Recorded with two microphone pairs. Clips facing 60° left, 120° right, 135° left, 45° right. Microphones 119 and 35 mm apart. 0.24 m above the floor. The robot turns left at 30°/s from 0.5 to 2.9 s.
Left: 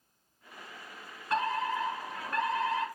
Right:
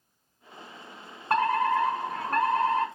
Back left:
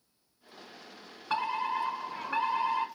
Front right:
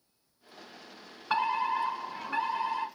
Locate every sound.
1.3 s a fire alarm: 115° right, 4 m; by 2.9 s 160° right, 4 m